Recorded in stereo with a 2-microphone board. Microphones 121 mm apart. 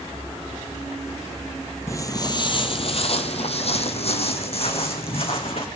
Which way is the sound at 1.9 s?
25° left (ahead or behind).